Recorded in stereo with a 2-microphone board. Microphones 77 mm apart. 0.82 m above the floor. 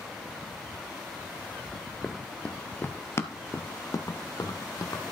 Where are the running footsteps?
5° left (ahead or behind), 0.9 m; by 5.0 s 50° left (ahead or behind), 1.6 m.